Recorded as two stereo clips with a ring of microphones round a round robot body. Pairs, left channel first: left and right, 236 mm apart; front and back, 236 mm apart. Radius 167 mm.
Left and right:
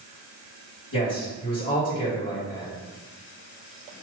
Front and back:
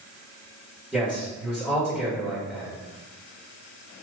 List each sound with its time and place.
0.9 s a man speaking: 95° left, 1.9 m